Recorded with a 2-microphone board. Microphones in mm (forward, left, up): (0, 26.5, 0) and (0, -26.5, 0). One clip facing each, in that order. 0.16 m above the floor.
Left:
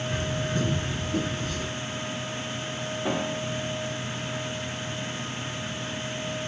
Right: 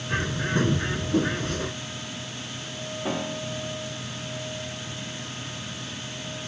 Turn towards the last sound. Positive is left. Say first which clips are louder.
# left 1 dB
turn(degrees=5)  # may be behind; listen again after turning